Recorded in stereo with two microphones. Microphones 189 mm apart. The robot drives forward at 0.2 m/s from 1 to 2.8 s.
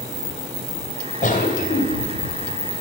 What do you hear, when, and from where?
1.2 s a cough: 45° left (ahead or behind), 2 m; by 2.8 s 40° left (ahead or behind), 2.5 m